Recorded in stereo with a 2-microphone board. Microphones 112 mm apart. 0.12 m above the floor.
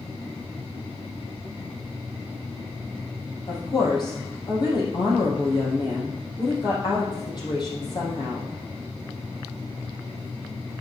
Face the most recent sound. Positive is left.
turn(degrees=40)  # may be behind; listen again after turning